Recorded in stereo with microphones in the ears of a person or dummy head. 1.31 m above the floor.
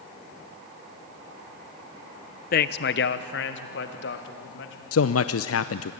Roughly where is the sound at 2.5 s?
Left.